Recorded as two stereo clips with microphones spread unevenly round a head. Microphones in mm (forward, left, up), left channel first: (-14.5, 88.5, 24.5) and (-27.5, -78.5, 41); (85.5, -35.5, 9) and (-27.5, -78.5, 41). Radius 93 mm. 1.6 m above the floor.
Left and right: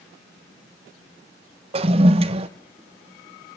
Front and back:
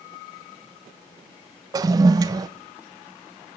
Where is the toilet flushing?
130° right, 0.9 m.